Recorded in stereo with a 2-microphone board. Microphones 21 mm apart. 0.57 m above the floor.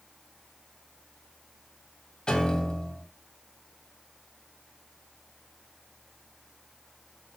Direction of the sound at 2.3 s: 40° left (ahead or behind).